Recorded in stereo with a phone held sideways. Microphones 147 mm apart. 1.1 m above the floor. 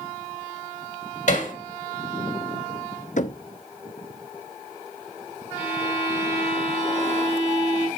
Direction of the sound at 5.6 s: 35° left (ahead or behind).